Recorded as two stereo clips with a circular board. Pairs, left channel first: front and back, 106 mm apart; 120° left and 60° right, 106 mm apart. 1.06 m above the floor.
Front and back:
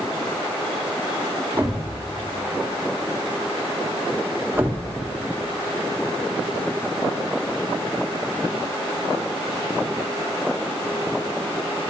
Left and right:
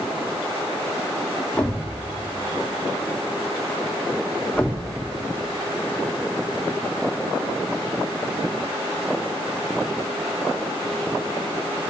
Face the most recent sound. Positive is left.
turn(degrees=180)